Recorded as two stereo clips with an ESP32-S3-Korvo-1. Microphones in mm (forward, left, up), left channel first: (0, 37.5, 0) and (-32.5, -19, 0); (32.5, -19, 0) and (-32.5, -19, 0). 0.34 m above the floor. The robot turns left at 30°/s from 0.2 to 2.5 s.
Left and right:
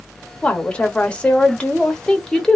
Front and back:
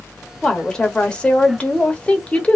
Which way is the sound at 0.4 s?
55° left.